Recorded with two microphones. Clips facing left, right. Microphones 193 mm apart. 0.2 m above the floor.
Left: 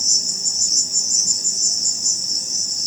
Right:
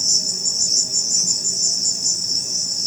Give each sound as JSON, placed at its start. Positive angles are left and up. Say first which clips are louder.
{"t": 0.0, "sound": "an insect", "louder": "right 3 dB", "side_deg": -55, "distance_m": 0.8}